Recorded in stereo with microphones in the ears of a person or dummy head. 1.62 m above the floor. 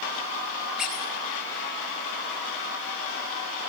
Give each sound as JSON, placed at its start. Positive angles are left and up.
{"t": 0.8, "sound": "a squeak", "side_deg": 0, "distance_m": 5.5}